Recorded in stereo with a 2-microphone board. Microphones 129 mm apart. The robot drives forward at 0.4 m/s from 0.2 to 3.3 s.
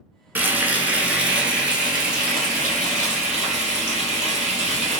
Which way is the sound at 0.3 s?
15° right (ahead or behind).